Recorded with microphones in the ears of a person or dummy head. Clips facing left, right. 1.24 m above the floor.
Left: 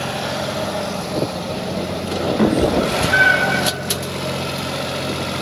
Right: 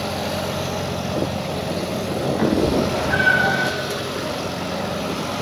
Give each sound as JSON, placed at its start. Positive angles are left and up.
{"t": 2.4, "sound": "a cat meowing", "side_deg": 50, "distance_m": 2.0}